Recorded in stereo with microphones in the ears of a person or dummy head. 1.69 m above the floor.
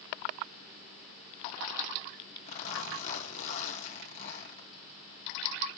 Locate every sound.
2.5 s a zipper: 45° left (ahead or behind), 2.5 m